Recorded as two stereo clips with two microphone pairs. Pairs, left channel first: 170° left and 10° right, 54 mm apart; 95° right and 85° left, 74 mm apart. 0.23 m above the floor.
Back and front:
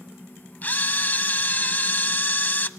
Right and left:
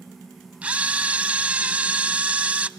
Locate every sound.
0.6 s a camera shutter: 145° left, 0.7 m